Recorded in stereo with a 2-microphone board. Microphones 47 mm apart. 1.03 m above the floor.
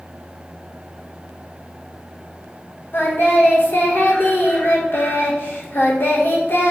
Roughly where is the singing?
Left.